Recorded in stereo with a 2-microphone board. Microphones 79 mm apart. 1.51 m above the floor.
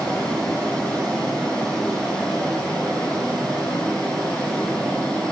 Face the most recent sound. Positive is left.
turn(degrees=15)  # may be behind; listen again after turning